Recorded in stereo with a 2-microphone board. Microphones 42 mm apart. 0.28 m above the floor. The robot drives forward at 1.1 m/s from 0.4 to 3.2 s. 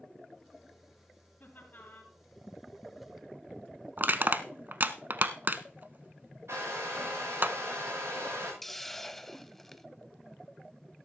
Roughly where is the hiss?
Centre.